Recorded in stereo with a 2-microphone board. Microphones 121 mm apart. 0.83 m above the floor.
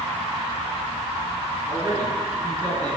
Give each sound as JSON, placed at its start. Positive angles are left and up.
{"t": 1.7, "sound": "a man speaking", "side_deg": -15, "distance_m": 9.5}